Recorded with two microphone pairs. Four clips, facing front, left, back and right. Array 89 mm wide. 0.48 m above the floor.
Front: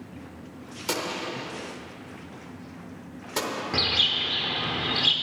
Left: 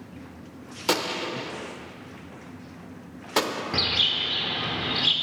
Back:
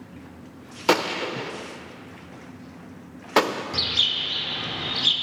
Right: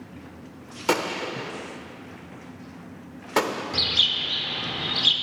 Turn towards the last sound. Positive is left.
turn(degrees=25)